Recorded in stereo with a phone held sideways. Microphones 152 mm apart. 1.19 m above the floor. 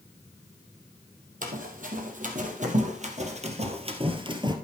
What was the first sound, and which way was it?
Running footsteps, 60° right (ahead or behind).